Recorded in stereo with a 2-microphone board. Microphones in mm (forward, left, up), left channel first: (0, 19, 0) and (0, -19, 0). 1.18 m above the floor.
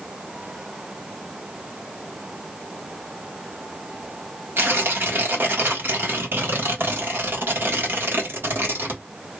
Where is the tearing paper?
70° right (ahead or behind), 1.3 m.